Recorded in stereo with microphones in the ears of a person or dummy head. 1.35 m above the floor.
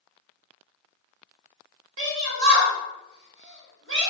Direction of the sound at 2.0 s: 60° right (ahead or behind).